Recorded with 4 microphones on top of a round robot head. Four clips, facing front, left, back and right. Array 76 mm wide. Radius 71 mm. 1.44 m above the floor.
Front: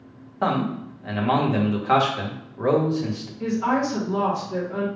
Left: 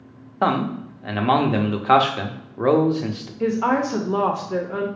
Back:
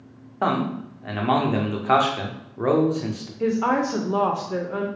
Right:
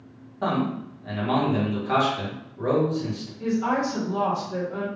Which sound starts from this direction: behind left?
A woman speaking, at 3.4 s.